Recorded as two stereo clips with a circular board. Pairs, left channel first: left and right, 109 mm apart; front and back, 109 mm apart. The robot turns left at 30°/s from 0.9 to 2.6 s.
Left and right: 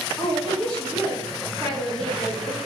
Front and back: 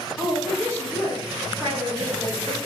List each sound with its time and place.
0.2 s a woman speaking: 40° left, 1.5 m; by 2.6 s 10° right, 1.5 m